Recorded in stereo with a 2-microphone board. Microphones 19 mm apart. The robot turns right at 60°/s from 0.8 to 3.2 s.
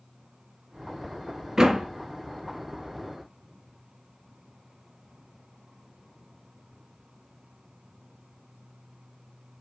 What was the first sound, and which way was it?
A door slam, 30° right (ahead or behind).